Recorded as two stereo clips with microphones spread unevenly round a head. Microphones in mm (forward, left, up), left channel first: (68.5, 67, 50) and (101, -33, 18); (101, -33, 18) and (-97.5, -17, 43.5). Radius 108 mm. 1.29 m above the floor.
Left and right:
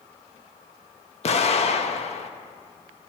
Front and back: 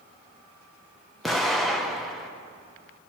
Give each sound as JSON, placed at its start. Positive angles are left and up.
{"t": 1.2, "sound": "an explosion", "azimuth_deg": 80, "distance_m": 0.8}